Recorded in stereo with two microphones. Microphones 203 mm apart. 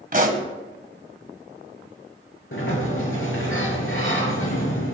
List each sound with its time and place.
0.1 s a pop: 40° right (ahead or behind), 1.9 m
2.5 s a sliding door: 70° left (ahead or behind), 4 m